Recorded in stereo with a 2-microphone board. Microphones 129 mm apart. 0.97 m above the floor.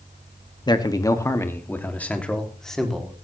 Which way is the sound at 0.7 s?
30° left (ahead or behind).